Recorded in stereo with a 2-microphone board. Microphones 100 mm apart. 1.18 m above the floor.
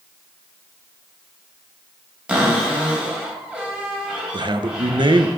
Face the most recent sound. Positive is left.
turn(degrees=-50)  # may be behind; listen again after turning